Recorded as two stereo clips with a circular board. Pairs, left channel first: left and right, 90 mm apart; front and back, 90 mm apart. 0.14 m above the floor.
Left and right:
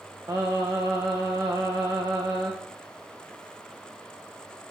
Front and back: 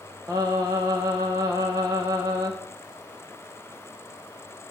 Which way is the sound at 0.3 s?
130° right.